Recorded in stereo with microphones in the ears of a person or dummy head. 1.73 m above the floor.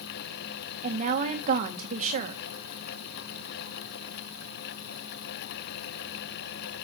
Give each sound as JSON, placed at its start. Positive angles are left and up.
{"t": 0.8, "sound": "a woman speaking", "side_deg": -40, "distance_m": 1.6}